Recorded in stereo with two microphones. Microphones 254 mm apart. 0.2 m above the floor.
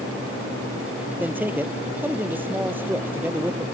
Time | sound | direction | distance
1.2 | a man speaking | 5° right (ahead or behind) | ?